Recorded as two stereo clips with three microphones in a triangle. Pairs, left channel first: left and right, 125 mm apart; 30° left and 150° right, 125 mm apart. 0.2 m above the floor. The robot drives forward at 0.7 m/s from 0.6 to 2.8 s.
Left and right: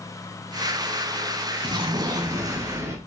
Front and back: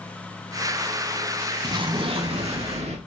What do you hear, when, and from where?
1.6 s an explosion: 115° right, 0.8 m; by 3.0 s 155° right, 1.3 m